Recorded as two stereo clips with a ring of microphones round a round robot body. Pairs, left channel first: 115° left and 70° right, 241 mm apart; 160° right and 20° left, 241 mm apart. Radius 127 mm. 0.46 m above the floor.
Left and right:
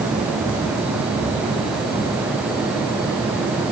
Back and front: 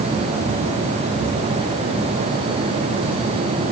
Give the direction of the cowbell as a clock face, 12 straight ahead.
No cowbell in this recording.